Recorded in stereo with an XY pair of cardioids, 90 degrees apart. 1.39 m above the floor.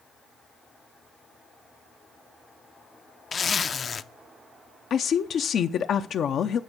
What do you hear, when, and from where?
3.3 s a zipper: 45° left, 0.5 m
4.9 s a woman speaking: 65° left, 0.6 m